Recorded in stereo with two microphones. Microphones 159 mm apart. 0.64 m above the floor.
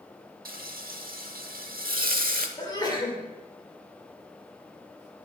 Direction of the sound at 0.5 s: 65° right (ahead or behind).